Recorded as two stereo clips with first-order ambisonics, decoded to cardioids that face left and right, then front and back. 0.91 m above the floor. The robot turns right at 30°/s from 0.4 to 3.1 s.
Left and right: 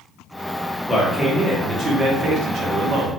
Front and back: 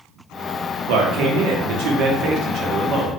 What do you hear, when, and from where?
0.9 s a man speaking: 175° left, 0.7 m; by 3.2 s 120° right, 0.7 m